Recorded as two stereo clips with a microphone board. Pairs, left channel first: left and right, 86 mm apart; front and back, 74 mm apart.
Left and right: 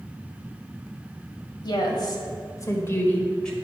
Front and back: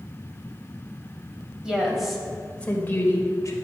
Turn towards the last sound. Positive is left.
turn(degrees=10)